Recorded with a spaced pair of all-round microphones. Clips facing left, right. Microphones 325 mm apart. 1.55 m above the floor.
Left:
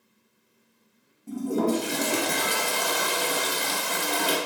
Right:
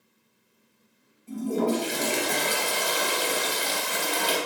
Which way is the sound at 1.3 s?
60° left (ahead or behind).